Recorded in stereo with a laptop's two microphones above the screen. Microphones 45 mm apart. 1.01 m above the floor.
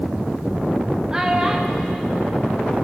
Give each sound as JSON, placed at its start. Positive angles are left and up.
{"t": 1.1, "sound": "a child speaking", "side_deg": -15, "distance_m": 0.8}